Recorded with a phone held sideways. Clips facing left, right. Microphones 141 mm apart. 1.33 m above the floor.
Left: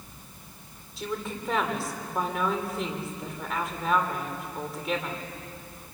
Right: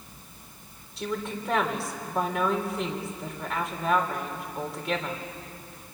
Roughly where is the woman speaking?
Centre.